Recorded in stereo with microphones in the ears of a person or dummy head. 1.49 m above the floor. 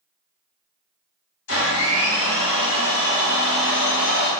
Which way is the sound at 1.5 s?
65° left (ahead or behind).